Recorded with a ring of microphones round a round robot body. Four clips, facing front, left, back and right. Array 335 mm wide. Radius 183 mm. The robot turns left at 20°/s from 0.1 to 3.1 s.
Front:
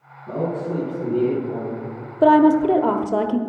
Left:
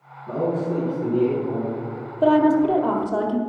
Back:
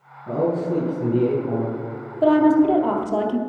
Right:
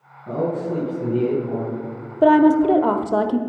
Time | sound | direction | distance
0.3 | a man speaking | 135° right | 4.5 m
2.2 | a woman speaking | 40° right | 0.9 m